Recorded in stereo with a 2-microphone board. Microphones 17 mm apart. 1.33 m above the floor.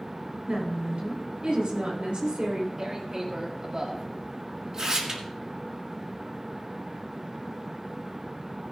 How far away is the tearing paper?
About 1.6 m.